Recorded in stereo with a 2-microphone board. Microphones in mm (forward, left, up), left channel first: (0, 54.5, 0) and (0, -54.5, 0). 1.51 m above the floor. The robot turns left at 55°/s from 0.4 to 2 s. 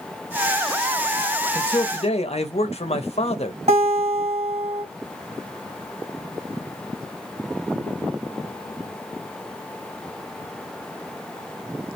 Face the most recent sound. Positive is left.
turn(degrees=-85)